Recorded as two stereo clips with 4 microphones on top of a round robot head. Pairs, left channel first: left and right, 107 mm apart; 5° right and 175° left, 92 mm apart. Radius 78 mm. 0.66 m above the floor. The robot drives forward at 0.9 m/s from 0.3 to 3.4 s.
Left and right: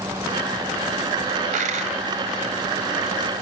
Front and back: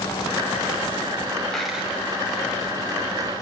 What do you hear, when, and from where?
1.5 s a dropped coin: 95° right, 1.5 m; by 1.9 s 105° right, 1.6 m